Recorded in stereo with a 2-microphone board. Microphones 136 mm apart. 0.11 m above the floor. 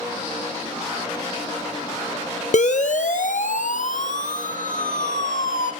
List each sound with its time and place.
2.5 s a siren: 65° left (ahead or behind), 2 m; by 5.7 s 70° left (ahead or behind), 4 m